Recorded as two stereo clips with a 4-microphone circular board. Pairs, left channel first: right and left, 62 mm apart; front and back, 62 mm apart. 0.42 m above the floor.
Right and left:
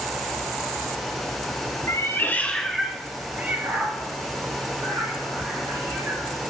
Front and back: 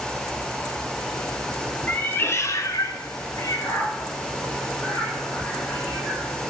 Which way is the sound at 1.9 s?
60° right.